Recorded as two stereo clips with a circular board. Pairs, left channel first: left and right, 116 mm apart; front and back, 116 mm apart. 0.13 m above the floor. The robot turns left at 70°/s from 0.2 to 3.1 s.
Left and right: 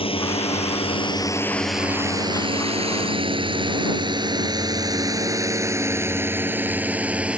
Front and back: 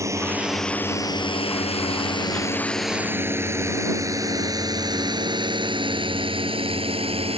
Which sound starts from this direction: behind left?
A drone, at 0.0 s.